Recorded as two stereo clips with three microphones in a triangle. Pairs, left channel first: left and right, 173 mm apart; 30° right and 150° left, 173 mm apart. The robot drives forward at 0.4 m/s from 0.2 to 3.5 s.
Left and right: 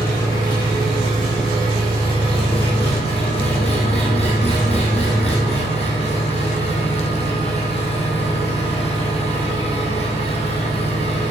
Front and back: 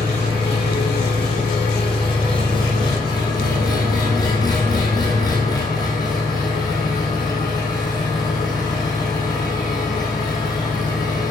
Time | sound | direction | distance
0.0 | an engine running | 25° left | 4 m